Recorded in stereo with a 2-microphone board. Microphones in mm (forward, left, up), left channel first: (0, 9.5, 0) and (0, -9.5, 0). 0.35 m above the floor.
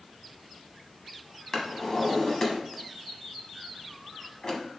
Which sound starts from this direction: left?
A drawer, at 1.5 s.